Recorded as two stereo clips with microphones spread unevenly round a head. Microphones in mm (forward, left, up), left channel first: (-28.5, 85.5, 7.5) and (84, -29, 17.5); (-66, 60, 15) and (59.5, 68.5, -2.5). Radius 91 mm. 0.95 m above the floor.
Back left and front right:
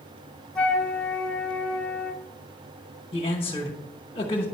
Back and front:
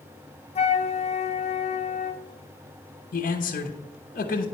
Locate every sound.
0.6 s a flute: 145° right, 0.8 m
3.1 s a man speaking: 170° right, 1.0 m